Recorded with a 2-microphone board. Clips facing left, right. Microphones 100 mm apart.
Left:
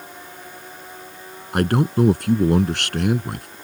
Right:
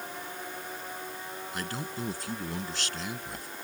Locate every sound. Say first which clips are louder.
1.5 s a man speaking: left 19 dB; 65° left (ahead or behind)